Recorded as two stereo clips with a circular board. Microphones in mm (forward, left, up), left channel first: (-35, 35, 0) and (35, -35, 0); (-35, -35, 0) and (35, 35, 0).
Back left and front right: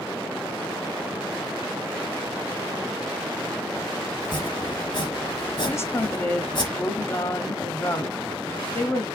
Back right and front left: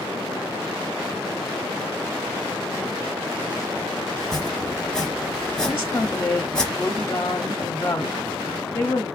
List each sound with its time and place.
4.2 s chopping: 145° left, 1.3 m
5.7 s a woman speaking: 175° left, 0.8 m